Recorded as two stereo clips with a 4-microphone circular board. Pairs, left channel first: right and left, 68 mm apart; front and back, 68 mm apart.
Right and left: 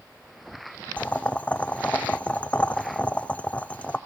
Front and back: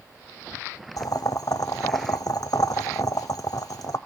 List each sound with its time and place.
1.0 s boiling: 20° right, 0.7 m